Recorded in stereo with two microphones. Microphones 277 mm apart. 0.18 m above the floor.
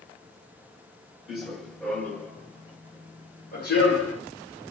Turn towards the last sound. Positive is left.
turn(degrees=50)  # may be behind; listen again after turning